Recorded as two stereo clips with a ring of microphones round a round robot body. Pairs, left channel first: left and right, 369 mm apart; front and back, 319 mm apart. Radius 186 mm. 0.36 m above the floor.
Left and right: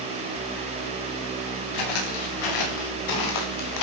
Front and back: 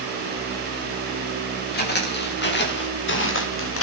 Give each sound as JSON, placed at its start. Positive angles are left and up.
{"t": 1.7, "sound": "footsteps", "azimuth_deg": 60, "distance_m": 6.5}